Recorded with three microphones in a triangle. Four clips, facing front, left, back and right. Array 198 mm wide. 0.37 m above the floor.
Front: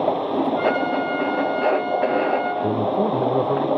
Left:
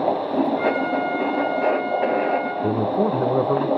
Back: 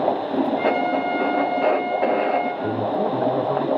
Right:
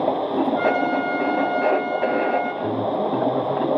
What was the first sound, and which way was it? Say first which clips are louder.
A trumpet: right 1 dB, even; 105° right.